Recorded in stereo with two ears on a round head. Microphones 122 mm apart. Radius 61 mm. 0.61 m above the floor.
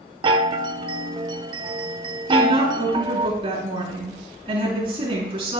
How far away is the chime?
About 0.9 m.